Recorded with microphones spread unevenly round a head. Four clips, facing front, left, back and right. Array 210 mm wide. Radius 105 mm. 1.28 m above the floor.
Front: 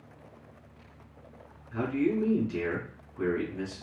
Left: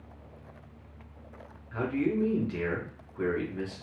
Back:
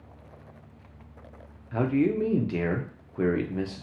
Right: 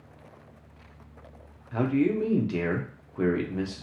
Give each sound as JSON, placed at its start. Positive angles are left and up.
{"t": 1.7, "sound": "a man speaking", "azimuth_deg": -145, "distance_m": 0.6}